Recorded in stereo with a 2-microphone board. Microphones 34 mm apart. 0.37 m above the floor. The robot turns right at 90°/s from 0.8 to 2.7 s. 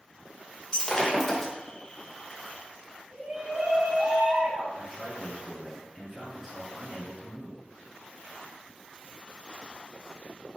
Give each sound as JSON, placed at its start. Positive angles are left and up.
{"t": 0.7, "sound": "breaking glass", "side_deg": 20, "distance_m": 0.6}
{"t": 3.1, "sound": "a shout", "side_deg": -30, "distance_m": 1.4}
{"t": 4.7, "sound": "a man speaking", "side_deg": -5, "distance_m": 1.3}